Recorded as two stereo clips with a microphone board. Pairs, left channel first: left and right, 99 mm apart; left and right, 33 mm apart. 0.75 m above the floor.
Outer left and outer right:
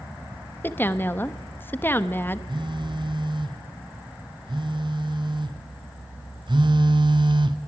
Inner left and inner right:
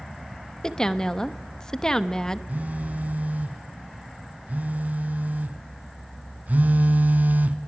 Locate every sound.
0.6 s a woman speaking: 20° left (ahead or behind), 0.8 m
2.5 s a phone buzzing: 50° right (ahead or behind), 1.0 m